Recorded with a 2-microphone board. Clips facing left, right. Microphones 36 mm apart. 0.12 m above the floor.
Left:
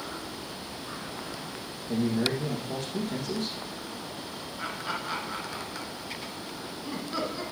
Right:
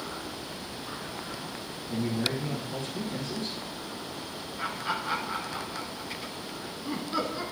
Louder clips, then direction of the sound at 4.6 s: Right 2 dB; 10° right (ahead or behind).